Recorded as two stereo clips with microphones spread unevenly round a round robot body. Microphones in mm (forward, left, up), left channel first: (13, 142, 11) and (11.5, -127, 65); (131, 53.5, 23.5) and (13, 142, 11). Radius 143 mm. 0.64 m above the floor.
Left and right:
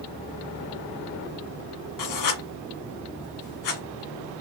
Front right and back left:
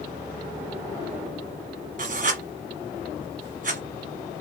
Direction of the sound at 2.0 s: 115° left.